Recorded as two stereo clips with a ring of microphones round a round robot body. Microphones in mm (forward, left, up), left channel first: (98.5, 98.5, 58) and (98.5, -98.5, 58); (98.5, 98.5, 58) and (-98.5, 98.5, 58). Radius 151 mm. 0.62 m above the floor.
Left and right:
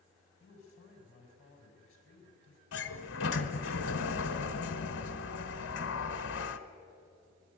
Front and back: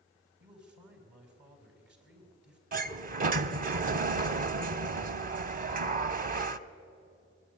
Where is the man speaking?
155° left, 4.5 m.